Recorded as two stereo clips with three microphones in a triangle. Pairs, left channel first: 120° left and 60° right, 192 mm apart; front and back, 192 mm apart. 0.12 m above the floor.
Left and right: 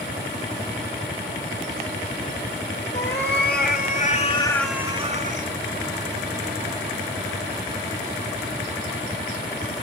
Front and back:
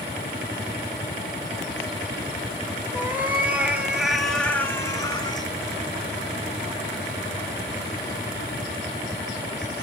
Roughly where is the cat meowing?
Left.